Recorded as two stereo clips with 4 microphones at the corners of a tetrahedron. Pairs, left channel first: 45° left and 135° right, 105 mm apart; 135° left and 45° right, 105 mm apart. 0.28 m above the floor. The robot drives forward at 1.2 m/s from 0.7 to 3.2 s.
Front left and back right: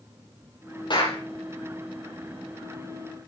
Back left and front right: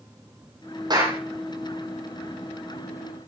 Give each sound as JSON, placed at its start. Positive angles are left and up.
{"t": 0.9, "sound": "a clap", "azimuth_deg": 0, "distance_m": 7.5}